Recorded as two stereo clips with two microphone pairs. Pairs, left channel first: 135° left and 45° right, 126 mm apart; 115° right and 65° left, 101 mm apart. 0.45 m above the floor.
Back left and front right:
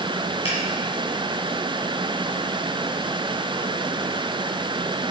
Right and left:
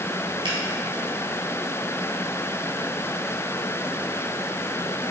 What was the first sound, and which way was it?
A finger snap, 100° left.